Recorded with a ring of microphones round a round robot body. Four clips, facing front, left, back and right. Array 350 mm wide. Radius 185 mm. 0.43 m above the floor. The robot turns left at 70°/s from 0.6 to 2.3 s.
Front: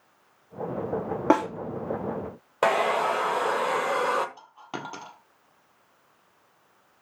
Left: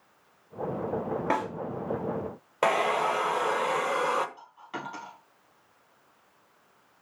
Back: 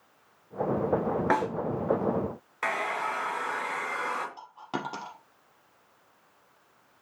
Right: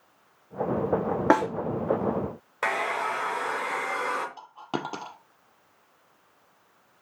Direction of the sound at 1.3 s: 40° right.